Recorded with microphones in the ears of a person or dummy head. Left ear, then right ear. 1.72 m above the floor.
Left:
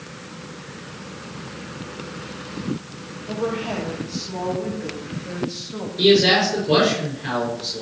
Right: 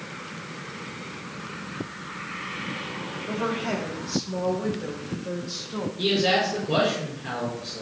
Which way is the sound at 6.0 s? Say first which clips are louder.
Left 7 dB; 50° left (ahead or behind).